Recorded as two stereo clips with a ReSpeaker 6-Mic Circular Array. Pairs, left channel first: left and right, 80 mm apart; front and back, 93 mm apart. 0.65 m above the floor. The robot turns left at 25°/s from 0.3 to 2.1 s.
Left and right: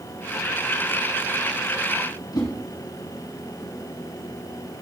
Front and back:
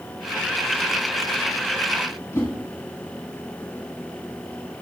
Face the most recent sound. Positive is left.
turn(degrees=60)